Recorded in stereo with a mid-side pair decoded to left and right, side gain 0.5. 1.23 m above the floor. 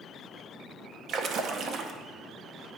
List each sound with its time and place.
1.1 s a splash: 60° right, 0.6 m